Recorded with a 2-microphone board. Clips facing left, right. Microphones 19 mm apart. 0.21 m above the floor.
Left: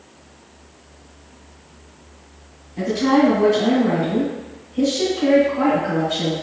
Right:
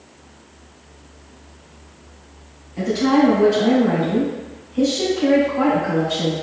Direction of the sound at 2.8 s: 35° right (ahead or behind).